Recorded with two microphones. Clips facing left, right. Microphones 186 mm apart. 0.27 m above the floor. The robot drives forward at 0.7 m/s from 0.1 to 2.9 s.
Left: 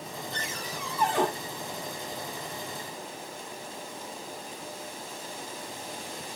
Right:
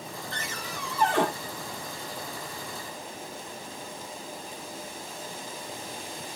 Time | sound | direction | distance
0.3 | a cupboard door | 70° right (ahead or behind) | 9 m